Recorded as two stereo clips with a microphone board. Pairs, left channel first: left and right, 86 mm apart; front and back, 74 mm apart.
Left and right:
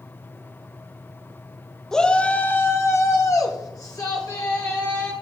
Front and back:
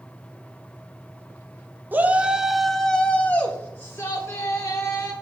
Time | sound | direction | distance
1.9 | a shout | 165° left | 0.8 m